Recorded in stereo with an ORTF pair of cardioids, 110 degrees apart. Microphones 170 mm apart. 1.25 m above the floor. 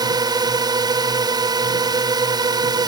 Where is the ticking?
I don't hear ticking.